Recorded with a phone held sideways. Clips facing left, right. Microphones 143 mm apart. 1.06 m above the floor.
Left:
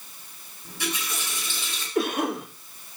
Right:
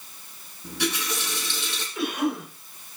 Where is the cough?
50° left (ahead or behind), 5 m.